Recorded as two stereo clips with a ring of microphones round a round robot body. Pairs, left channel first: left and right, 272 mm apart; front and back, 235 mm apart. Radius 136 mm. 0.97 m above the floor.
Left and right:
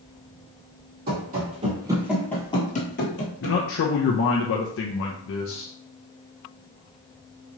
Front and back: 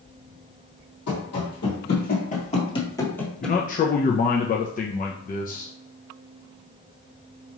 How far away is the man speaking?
About 0.5 m.